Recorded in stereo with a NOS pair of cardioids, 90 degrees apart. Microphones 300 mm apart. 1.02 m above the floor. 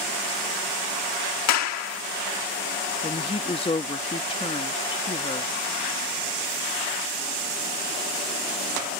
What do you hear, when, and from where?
1.5 s a clap: 65° left
3.0 s a woman speaking: 20° left